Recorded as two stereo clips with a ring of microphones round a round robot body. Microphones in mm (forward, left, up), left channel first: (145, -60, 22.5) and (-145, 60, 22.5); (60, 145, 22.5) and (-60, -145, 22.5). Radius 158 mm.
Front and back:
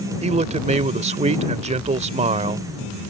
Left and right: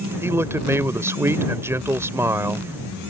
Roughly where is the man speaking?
Behind.